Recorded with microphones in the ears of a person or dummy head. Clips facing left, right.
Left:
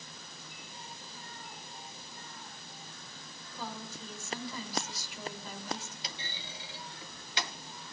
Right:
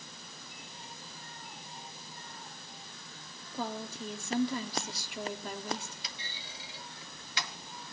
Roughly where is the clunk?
Left.